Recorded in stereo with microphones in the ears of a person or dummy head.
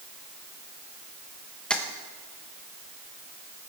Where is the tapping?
5° left (ahead or behind), 1.1 m.